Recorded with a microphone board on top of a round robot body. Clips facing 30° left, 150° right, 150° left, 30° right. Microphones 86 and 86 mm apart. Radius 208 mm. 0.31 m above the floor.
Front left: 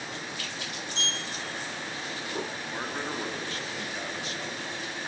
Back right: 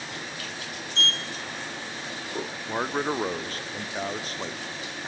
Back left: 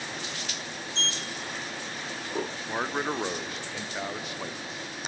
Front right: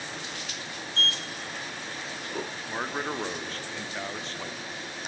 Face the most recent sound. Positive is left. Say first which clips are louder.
# back right 6 dB, back left 2 dB
turn(degrees=-140)